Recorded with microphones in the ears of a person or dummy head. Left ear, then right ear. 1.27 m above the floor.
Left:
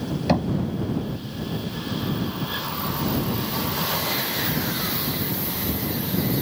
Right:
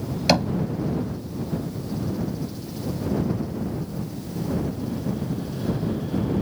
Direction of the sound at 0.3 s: 75° right (ahead or behind).